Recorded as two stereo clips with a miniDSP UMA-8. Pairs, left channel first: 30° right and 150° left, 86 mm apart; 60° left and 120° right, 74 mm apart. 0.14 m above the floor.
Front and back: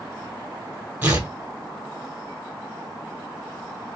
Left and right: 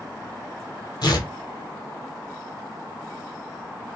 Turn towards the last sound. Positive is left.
turn(degrees=85)